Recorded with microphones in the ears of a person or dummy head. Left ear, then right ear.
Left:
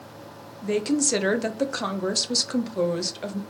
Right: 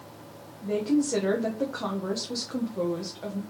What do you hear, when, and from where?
0.6 s a woman speaking: 75° left (ahead or behind), 0.8 m